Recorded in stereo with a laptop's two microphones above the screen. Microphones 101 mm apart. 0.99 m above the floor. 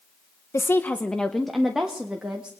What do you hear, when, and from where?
0.5 s a woman speaking: 25° left (ahead or behind), 0.7 m; by 2.5 s 10° right (ahead or behind), 1.9 m